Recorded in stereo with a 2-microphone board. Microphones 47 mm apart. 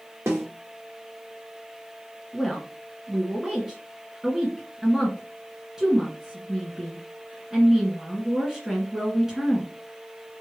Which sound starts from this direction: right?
A snare drum, at 0.3 s.